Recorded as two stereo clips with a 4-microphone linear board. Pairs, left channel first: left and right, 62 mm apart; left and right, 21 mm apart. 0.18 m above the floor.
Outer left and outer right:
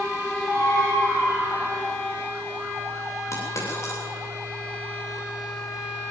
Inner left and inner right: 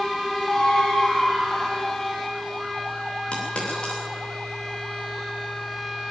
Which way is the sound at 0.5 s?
65° left (ahead or behind).